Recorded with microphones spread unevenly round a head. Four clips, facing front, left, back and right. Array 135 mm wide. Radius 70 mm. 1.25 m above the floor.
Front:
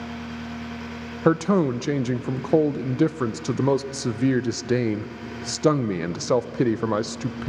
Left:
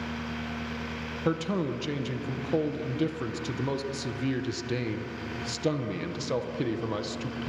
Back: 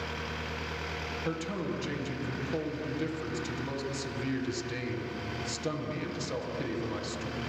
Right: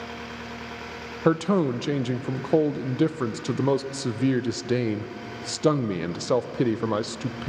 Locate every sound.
1.2 s a man speaking: 25° right, 0.6 m